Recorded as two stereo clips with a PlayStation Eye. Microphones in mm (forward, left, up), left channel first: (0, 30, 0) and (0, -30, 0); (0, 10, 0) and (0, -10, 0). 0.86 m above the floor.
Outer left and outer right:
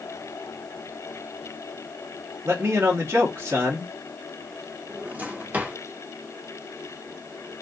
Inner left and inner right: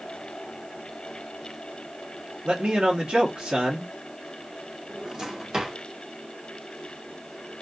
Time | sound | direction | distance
2.5 | a man speaking | 45° right (ahead or behind) | 1.4 m
4.9 | a drawer | 30° right (ahead or behind) | 1.0 m